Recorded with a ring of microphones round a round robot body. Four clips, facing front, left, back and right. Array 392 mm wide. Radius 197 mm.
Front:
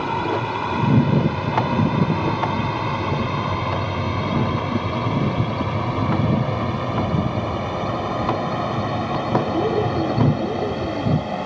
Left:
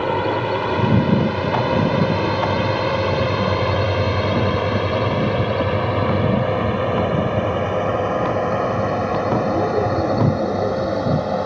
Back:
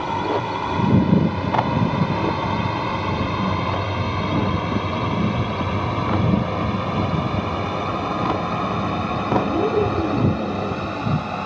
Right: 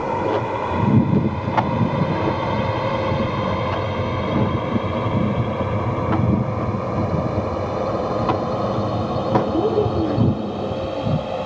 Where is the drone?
85° left; by 11.4 s 105° left.